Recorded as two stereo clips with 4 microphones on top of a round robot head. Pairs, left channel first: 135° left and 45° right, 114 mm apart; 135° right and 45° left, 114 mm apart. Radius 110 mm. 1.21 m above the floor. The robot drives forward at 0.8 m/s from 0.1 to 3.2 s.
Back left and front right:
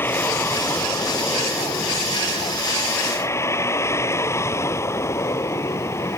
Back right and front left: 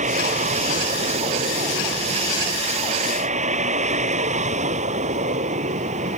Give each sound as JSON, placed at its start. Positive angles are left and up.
{"t": 0.0, "sound": "a vehicle", "azimuth_deg": 60}